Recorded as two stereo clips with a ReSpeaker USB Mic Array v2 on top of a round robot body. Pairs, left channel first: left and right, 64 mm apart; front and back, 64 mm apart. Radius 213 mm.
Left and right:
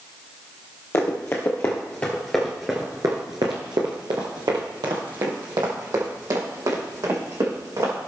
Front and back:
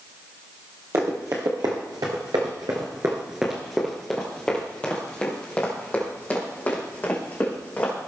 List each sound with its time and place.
0.9 s running footsteps: 145° left, 1.8 m; by 8.0 s 60° right, 4.5 m